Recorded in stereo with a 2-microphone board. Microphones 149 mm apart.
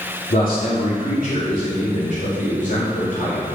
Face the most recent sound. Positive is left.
turn(degrees=70)  # may be behind; listen again after turning